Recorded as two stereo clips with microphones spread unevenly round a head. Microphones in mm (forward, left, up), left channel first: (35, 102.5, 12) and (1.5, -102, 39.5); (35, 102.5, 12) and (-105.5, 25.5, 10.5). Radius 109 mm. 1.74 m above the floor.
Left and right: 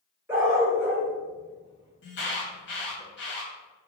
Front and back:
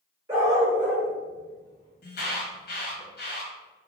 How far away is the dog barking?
About 1.5 m.